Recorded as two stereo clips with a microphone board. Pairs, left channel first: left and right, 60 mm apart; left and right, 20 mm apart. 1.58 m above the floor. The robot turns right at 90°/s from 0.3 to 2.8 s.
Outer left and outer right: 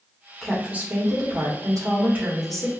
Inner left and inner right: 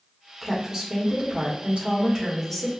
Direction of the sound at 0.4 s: 175° left.